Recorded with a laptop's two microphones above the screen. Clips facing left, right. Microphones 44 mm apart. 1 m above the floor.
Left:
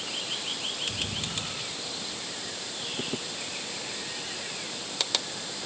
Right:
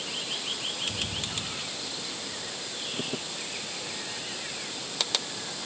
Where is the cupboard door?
No cupboard door in this recording.